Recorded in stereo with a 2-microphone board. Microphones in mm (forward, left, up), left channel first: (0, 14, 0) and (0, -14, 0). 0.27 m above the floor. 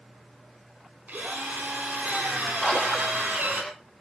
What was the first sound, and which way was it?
A drill, 80° right.